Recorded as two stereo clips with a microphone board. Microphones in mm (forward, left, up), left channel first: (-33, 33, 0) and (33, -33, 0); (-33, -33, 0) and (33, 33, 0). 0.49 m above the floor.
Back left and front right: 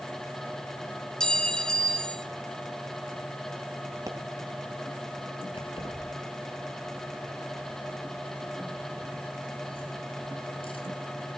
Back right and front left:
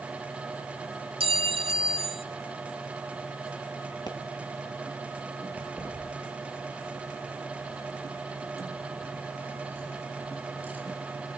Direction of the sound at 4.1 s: 95° right.